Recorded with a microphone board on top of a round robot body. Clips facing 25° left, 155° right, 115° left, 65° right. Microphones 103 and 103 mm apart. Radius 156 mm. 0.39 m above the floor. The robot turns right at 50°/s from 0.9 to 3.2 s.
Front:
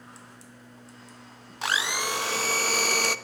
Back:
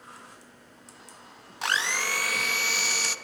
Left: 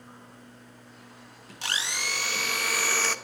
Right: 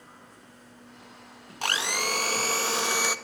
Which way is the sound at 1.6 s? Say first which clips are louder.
Even, right 5 dB; 65° right.